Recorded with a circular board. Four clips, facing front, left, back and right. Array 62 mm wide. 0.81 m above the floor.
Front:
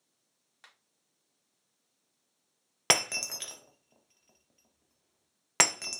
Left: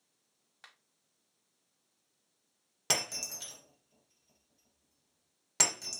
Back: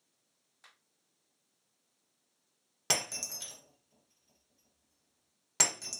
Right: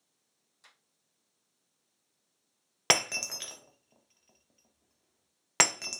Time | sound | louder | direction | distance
0.6 | a finger snap | left 5 dB, front 3 dB | 60° left | 1.7 m
2.9 | breaking glass | right 7 dB, front 7 dB | 50° right | 0.6 m